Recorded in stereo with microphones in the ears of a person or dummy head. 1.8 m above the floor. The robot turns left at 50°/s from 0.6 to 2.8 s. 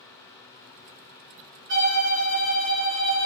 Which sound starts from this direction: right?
A violin, at 1.7 s.